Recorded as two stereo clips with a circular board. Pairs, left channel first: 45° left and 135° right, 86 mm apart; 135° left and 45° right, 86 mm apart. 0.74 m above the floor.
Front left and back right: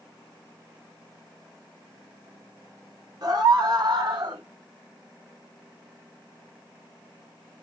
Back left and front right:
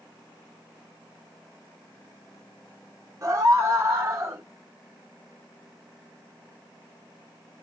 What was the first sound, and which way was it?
A scream, 95° right.